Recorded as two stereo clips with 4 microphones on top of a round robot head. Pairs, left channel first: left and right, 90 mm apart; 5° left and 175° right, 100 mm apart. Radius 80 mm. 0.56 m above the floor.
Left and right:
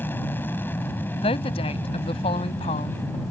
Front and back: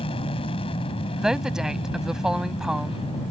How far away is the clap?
No clap in this recording.